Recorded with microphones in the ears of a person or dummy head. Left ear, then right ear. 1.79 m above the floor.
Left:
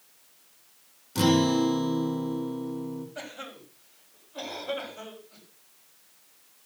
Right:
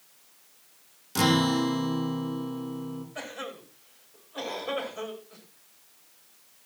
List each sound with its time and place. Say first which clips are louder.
1.1 s a guitar: left 1 dB; 70° right (ahead or behind), 3 m
3.1 s a cough: right 2 dB; 60° right (ahead or behind), 6 m